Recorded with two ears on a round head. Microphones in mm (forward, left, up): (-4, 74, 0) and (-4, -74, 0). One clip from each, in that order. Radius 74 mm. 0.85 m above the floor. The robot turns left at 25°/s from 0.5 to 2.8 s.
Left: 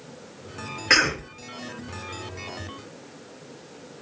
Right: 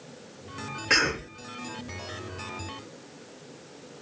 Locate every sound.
0.9 s a cough: 25° left (ahead or behind), 0.8 m; by 1.2 s 35° left (ahead or behind), 0.8 m